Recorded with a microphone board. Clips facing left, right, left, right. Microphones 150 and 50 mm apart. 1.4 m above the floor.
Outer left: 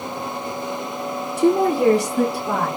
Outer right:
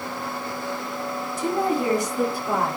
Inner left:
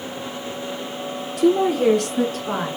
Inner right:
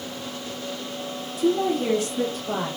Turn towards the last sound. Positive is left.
turn(degrees=70)  # may be behind; listen again after turning